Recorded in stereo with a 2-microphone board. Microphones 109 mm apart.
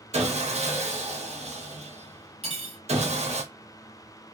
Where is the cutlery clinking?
65° right (ahead or behind), 1.1 m.